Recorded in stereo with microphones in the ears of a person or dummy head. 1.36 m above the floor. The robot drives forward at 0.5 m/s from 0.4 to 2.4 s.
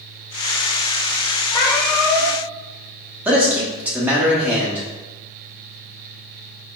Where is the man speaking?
5° right (ahead or behind), 1.1 m.